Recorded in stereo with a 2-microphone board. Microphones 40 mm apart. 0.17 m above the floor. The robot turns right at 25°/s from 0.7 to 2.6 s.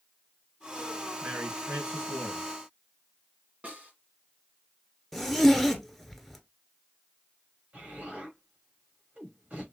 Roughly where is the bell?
I don't hear a bell.